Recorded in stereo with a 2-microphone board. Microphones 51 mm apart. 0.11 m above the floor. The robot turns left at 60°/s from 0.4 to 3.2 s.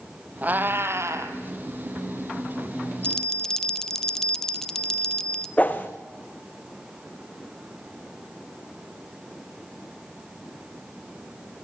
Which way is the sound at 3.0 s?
20° left (ahead or behind).